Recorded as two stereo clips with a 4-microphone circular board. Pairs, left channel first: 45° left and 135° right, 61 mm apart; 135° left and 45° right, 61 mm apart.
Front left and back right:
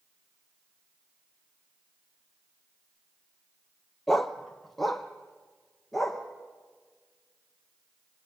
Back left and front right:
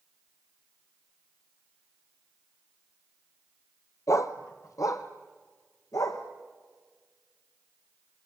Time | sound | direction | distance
4.1 | a dog barking | 135° left | 1.2 m